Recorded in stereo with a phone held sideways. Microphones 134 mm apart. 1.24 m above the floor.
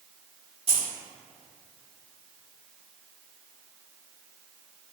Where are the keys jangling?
45° right (ahead or behind), 0.9 m.